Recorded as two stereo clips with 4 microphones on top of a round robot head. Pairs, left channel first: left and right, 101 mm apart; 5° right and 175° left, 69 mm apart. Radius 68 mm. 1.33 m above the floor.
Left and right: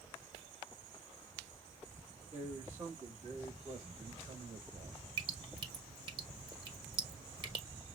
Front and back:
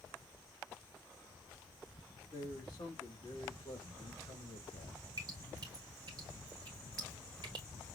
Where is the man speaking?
35° right, 2.5 m; by 5.0 s 30° right, 0.9 m.